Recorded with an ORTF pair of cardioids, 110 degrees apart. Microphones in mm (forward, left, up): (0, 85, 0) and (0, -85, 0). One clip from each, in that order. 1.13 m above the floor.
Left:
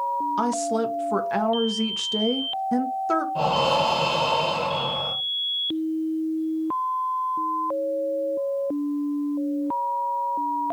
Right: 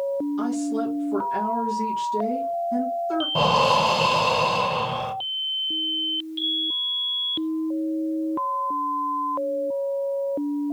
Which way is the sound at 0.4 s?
65° left.